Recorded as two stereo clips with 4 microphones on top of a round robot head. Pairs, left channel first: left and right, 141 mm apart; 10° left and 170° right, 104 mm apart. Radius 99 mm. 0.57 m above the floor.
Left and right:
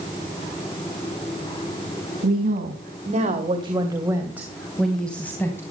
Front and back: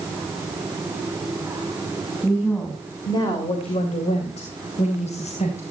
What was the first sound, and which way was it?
A woman speaking, 75° right.